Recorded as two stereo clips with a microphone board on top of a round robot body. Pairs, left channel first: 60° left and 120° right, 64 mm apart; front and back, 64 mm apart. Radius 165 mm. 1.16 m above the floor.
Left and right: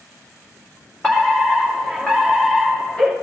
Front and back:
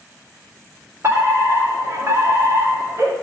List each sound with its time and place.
1.0 s a fire alarm: 140° left, 2.5 m